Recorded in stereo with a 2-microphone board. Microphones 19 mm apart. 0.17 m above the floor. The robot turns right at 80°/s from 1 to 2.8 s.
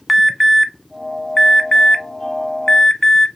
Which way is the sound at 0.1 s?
Centre (ahead or behind).